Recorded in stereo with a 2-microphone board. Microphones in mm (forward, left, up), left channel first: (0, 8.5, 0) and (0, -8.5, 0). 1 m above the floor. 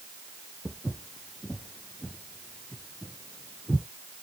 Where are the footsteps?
20° left (ahead or behind), 2 m; by 3.9 s centre (ahead or behind), 1.9 m.